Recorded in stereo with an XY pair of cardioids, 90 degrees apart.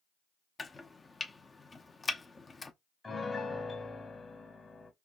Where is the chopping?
30° left, 0.7 m.